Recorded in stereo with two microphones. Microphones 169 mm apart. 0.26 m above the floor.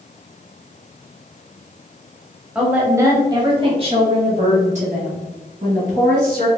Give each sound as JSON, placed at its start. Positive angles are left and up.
{"t": 2.5, "sound": "a woman speaking", "side_deg": -5, "distance_m": 1.0}